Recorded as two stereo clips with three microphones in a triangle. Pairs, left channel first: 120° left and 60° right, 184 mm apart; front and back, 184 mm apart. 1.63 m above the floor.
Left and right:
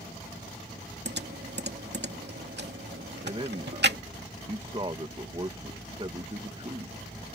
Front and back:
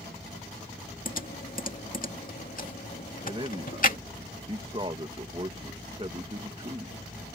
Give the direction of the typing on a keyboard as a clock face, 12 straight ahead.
1 o'clock.